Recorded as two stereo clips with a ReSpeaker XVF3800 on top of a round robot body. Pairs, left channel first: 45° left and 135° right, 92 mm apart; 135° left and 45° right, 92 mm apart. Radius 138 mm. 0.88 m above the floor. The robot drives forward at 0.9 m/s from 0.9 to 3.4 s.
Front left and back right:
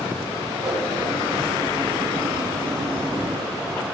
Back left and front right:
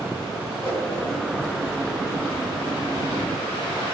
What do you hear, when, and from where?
0.6 s a whoosh: 55° right, 3 m